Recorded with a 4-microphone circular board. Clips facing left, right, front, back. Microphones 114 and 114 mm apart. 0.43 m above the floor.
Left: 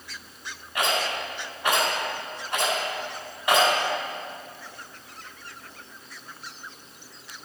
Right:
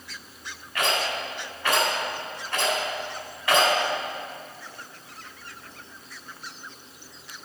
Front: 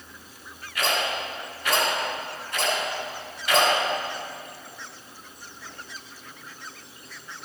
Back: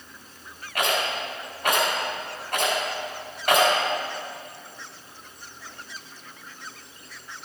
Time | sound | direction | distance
0.8 | a rattle | 160° left | 3 m